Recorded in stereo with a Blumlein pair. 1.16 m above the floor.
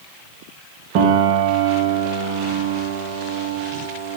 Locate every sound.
0.9 s a piano: 45° right, 1.3 m